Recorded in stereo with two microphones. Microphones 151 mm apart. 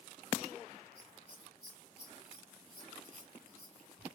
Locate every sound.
0.9 s scissors: 5° right (ahead or behind), 1.5 m